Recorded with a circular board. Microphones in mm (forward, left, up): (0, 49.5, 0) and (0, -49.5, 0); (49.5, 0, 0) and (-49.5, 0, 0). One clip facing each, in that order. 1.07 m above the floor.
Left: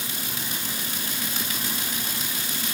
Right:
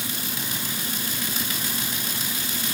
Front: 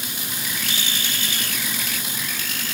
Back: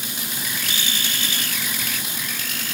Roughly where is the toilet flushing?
I don't hear a toilet flushing.